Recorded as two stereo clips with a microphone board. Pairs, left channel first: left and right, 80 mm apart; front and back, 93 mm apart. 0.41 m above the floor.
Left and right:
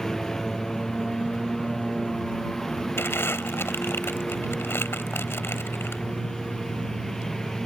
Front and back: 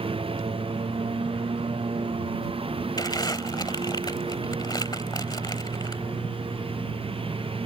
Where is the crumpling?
35° left.